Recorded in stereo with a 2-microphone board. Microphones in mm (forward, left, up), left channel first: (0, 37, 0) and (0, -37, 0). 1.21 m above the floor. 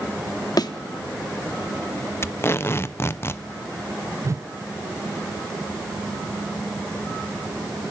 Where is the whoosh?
45° right (ahead or behind), 0.5 m.